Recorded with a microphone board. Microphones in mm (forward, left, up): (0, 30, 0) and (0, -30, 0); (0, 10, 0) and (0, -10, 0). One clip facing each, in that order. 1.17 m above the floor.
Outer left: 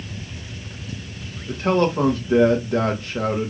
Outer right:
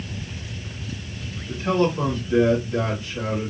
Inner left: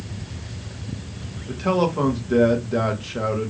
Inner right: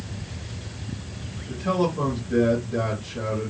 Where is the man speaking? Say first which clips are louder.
Outer left 2 dB, inner left 3 dB; 55° left (ahead or behind), 1.5 m.